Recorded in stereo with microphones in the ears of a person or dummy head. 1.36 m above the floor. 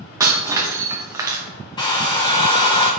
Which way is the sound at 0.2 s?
15° right (ahead or behind).